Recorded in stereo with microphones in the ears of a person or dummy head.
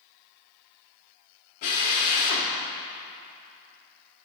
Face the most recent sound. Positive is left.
turn(degrees=40)  # may be behind; listen again after turning